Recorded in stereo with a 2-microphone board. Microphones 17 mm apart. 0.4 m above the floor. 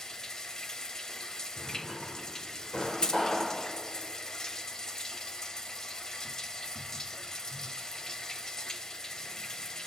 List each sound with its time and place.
0.0 s running water: 35° left (ahead or behind), 1.0 m
1.6 s a drawer: 75° left (ahead or behind), 5.5 m
3.0 s keys jangling: 55° left (ahead or behind), 1.4 m